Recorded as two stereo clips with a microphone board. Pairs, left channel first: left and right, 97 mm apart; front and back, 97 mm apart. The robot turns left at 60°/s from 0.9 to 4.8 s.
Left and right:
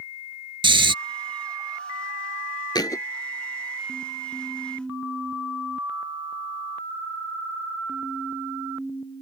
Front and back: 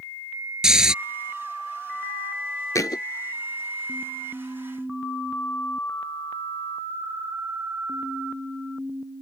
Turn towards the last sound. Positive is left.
turn(degrees=-70)